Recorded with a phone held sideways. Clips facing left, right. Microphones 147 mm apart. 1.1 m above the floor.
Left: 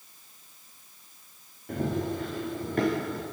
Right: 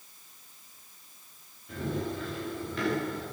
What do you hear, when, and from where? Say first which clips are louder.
1.7 s running footsteps: left 4 dB; 55° left (ahead or behind), 9.5 m; by 3.2 s 50° left (ahead or behind), 8 m